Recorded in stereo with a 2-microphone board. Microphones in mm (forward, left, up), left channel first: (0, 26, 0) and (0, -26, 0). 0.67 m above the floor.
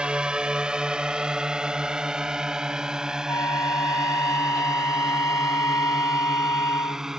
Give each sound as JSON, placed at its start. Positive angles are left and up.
{"t": 0.0, "sound": "a drone", "side_deg": -15}
{"t": 3.3, "sound": "a flute", "side_deg": 75}